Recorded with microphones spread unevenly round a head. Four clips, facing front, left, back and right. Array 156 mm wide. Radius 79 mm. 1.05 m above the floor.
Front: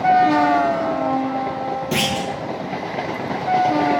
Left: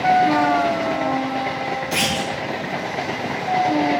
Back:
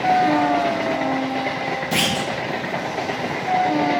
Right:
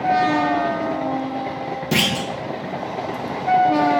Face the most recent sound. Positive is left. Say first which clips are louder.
# right 1 dB, even
turn(degrees=-70)